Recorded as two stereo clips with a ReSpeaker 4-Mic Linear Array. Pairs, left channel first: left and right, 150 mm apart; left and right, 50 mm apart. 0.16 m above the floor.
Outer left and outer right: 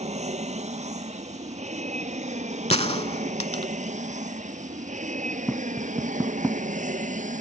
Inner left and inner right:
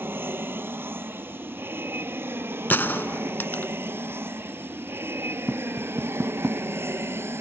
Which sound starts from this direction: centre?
Tapping, at 5.5 s.